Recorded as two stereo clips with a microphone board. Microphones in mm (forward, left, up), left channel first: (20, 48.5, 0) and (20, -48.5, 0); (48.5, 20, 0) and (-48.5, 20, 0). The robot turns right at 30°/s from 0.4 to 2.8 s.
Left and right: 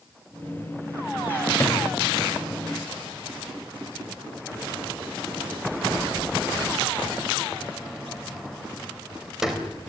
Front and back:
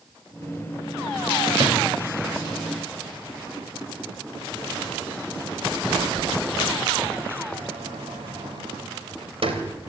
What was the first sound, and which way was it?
A sliding door, 150° left.